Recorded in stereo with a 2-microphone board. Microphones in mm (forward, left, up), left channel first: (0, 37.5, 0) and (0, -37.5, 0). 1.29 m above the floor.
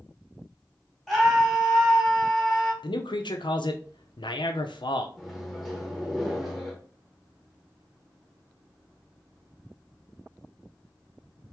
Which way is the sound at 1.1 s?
Centre (ahead or behind).